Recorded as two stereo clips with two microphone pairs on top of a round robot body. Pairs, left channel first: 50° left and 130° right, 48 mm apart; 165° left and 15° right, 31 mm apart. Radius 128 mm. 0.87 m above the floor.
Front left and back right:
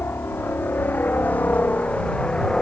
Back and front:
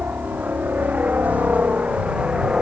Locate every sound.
0.0 s a helicopter: straight ahead; by 2.6 s 20° right